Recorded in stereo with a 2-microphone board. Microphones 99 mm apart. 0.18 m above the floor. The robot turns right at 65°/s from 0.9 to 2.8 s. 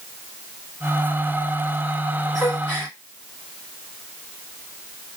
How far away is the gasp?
About 1.8 m.